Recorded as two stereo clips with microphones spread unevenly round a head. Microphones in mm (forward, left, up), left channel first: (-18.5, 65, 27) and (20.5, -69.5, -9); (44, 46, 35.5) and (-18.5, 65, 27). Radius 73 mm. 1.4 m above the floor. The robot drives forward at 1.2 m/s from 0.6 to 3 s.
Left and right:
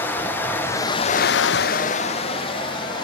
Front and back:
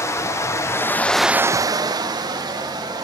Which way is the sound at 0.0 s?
30° left.